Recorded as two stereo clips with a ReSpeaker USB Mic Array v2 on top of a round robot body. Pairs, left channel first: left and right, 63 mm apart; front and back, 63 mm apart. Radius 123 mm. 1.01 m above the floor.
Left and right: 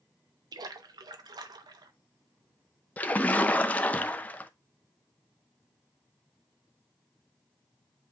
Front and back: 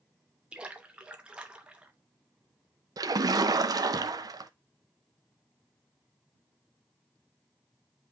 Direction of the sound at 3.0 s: 155° left.